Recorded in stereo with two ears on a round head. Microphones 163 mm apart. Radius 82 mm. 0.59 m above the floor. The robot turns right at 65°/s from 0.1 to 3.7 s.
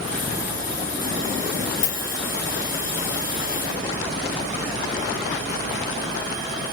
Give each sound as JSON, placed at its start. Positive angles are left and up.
{"t": 1.8, "sound": "a dropped coin", "side_deg": 75, "distance_m": 2.5}